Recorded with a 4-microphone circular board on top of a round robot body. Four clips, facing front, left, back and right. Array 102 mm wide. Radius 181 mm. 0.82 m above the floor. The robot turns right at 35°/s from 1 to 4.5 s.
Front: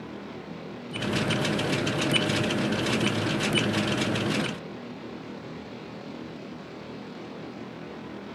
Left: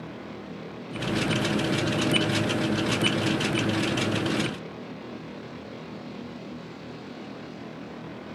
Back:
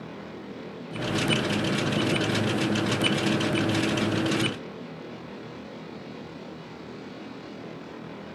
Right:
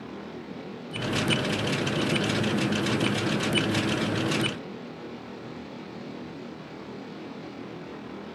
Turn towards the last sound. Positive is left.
No sound to turn to.